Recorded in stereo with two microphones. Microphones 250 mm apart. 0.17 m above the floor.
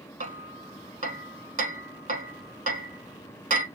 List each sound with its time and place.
0.2 s hammering: 30° right (ahead or behind), 0.7 m